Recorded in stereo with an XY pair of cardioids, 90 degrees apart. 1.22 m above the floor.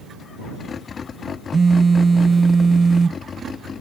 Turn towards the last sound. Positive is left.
turn(degrees=-30)